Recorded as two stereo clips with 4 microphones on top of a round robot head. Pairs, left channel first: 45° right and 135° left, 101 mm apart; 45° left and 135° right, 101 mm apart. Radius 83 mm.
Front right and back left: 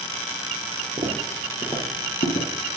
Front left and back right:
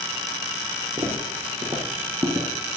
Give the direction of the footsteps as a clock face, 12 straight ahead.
6 o'clock.